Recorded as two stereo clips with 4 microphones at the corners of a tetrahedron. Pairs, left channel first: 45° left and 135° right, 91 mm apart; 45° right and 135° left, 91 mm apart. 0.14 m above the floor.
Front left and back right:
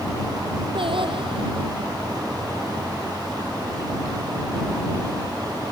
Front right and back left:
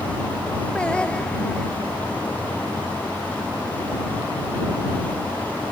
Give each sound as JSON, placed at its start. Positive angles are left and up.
{"t": 0.8, "sound": "singing", "azimuth_deg": -125}